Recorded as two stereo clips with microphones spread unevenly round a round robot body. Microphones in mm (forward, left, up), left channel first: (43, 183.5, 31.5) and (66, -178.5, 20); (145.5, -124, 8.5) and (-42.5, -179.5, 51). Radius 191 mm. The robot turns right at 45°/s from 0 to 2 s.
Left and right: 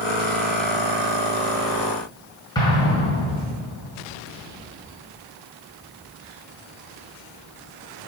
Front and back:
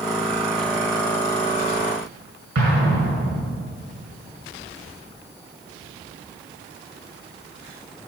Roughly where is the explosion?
Behind.